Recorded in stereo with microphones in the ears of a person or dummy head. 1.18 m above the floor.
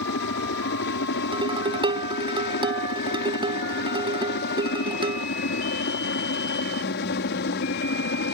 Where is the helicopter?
60° left (ahead or behind); by 8.3 s 55° left (ahead or behind).